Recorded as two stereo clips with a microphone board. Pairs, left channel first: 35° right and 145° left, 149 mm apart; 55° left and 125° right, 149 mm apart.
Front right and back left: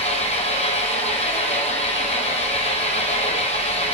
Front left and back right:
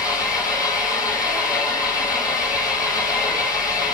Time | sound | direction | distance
0.0 | an engine running | 5° right | 1.2 m